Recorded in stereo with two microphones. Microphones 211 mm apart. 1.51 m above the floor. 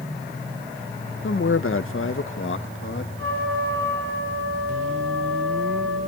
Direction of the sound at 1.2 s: 65° left (ahead or behind).